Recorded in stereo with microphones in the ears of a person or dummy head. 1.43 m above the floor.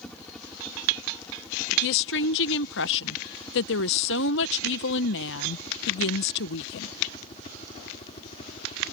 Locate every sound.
0.0 s a helicopter: centre (ahead or behind); by 8.9 s 30° left (ahead or behind)
1.8 s a woman speaking: 60° left (ahead or behind)